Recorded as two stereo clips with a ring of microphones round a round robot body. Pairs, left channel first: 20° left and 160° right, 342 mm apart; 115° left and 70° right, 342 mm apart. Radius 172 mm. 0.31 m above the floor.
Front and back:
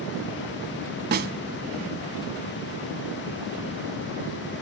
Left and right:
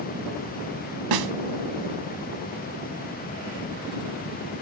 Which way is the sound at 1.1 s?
95° right.